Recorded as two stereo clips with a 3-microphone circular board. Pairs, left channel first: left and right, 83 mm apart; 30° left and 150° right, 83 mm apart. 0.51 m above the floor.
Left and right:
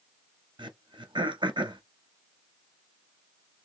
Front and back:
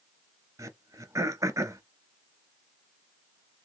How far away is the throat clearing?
About 0.5 m.